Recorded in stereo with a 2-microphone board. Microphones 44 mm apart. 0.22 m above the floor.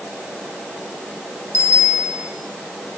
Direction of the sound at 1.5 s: 75° left (ahead or behind).